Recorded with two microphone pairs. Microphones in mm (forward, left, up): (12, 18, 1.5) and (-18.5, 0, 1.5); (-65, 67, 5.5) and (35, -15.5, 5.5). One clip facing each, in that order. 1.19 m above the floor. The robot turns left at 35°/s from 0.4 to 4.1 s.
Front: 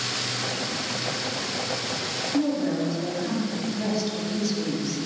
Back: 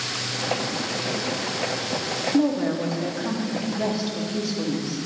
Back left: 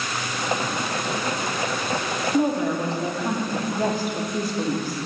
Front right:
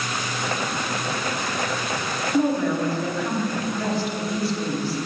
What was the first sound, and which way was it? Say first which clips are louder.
A woman speaking: back 2 dB, front right 1 dB; 150° right.